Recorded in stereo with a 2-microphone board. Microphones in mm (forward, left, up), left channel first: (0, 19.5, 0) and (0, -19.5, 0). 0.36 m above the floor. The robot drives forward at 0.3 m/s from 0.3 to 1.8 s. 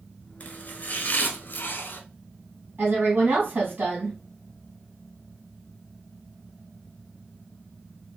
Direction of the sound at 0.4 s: 40° left (ahead or behind).